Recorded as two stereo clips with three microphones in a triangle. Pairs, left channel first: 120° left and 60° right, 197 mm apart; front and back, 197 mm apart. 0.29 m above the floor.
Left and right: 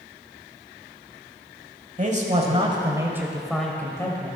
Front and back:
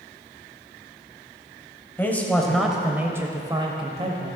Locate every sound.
2.0 s a man speaking: 75° right, 1.2 m; by 4.4 s 165° left, 1.1 m